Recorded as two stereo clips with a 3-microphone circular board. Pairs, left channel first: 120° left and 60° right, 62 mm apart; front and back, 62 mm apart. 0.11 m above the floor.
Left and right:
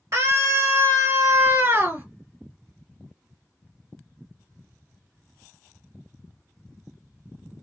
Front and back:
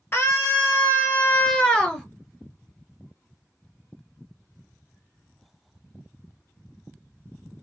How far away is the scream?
About 2 m.